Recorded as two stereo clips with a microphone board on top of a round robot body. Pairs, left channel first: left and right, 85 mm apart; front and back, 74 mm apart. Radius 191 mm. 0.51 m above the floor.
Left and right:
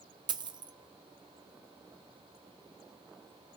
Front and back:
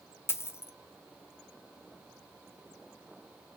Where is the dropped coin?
60° right, 0.5 m.